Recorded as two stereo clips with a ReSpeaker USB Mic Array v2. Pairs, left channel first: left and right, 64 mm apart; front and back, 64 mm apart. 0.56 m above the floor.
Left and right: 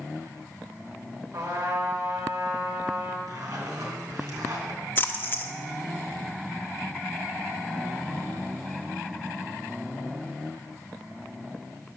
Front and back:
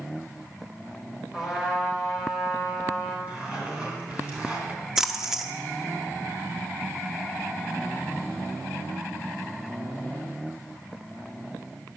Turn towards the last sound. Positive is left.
turn(degrees=105)